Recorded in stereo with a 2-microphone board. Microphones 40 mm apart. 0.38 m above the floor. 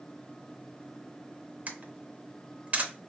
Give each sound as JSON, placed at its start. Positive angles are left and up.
{"t": 1.7, "sound": "a camera shutter", "side_deg": -40, "distance_m": 0.6}